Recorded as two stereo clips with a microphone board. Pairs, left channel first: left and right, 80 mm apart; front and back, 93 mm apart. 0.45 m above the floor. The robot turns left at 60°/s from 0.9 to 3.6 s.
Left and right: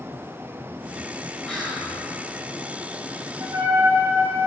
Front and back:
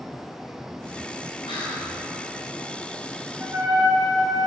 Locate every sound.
1.5 s whispering: 15° left, 2.5 m; by 1.9 s 10° right, 2.5 m
3.4 s a trumpet: 120° right, 2.5 m; by 4.5 s 130° right, 2.5 m